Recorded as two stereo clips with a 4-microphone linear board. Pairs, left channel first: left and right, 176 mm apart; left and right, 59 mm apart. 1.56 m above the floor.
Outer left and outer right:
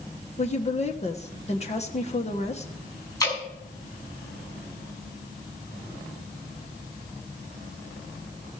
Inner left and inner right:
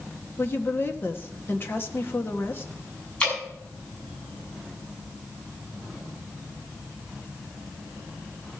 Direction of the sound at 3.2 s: 20° left (ahead or behind).